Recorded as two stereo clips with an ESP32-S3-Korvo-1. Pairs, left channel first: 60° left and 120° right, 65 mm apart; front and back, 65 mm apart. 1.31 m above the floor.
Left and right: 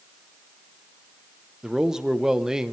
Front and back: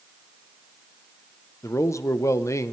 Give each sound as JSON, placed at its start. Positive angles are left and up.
{"t": 1.6, "sound": "a man speaking", "azimuth_deg": -40, "distance_m": 0.8}